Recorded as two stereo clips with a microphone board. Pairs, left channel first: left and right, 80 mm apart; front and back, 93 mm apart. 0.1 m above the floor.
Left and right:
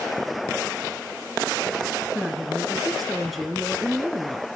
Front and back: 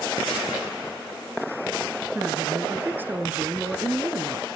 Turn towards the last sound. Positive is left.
turn(degrees=175)